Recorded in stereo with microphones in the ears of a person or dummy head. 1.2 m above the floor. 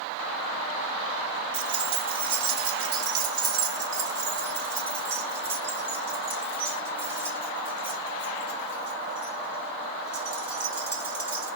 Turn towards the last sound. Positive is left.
turn(degrees=-5)  # may be behind; listen again after turning